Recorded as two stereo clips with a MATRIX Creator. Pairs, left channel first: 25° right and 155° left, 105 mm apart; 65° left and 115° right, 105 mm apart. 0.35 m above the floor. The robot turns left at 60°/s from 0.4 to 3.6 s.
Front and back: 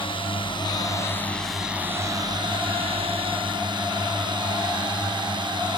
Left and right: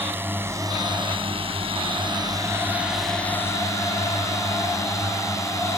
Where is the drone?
45° right; by 5.8 s 125° left.